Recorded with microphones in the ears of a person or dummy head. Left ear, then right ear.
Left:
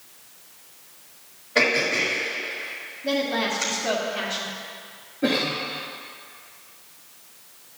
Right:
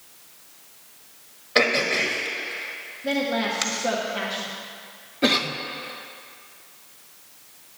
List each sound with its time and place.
1.6 s throat clearing: 35° right (ahead or behind), 1.5 m
3.0 s a woman speaking: 10° right (ahead or behind), 1.1 m
5.2 s a cough: 50° right (ahead or behind), 0.6 m